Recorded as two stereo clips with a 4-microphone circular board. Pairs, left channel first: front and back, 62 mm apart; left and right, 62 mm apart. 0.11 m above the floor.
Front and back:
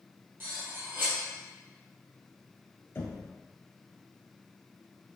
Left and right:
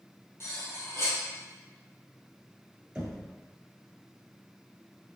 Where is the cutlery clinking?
130° left, 1.5 m.